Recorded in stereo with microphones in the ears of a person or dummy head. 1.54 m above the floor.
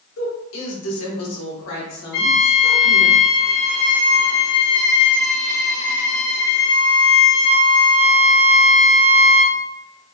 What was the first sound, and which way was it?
A woman speaking, 70° left (ahead or behind).